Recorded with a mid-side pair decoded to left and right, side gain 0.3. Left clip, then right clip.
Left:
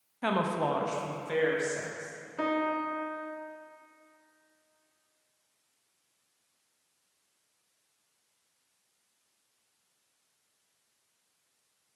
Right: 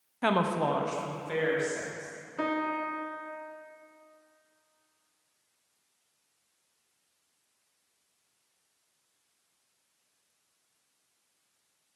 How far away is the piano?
About 0.8 m.